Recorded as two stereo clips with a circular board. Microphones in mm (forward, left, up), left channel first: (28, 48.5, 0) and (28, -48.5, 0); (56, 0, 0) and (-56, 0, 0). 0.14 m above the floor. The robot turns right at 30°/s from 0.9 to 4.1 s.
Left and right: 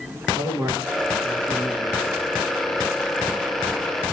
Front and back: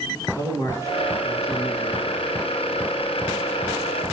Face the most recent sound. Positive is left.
turn(degrees=55)